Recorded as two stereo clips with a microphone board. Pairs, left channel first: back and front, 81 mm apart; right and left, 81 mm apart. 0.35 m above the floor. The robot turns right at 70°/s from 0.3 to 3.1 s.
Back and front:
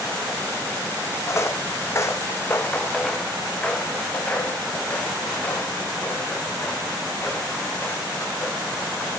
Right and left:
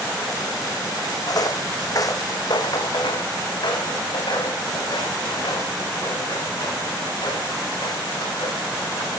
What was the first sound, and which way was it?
Footsteps, 130° right.